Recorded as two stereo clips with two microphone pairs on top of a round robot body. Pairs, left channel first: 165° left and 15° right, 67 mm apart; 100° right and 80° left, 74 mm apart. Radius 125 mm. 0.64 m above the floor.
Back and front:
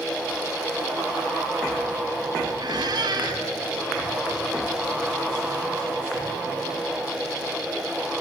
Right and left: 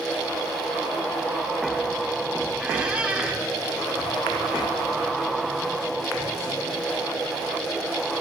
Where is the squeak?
5° left, 4 m.